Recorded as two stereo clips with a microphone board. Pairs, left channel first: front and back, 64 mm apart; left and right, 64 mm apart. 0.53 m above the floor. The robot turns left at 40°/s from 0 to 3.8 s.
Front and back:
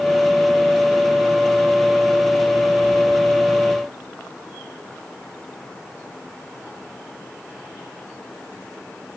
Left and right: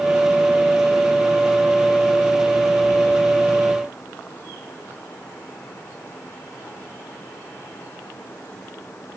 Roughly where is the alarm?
I don't hear an alarm.